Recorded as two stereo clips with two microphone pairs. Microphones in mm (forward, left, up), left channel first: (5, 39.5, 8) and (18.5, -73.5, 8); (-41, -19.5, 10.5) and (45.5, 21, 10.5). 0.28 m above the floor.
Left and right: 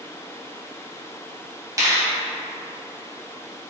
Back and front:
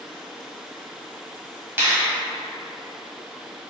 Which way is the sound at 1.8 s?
35° right.